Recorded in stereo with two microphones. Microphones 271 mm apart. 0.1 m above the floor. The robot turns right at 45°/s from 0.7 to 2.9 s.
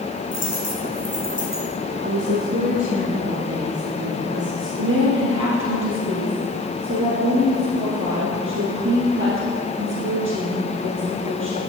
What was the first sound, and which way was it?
A dropped coin, 45° left (ahead or behind).